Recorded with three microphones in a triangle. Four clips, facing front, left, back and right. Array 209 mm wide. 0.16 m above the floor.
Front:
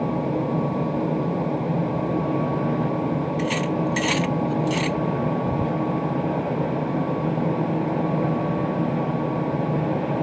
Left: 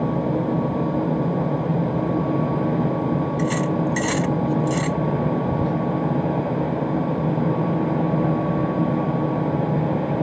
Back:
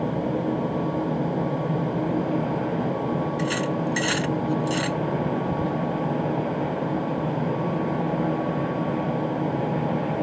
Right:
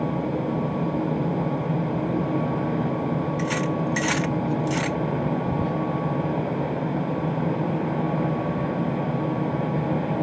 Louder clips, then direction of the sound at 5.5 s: Left 3 dB, front 2 dB; 15° right.